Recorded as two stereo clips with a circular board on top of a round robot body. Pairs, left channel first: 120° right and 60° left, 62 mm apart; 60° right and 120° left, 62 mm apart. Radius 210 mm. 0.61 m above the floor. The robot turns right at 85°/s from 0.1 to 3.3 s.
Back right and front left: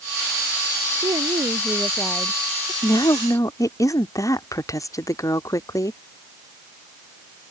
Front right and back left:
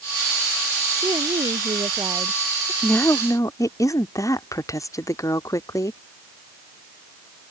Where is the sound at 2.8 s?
130° right; by 6.0 s 90° right.